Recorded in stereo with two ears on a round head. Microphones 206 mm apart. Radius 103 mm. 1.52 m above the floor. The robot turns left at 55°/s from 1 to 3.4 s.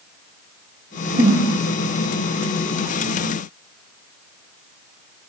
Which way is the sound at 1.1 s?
25° right (ahead or behind).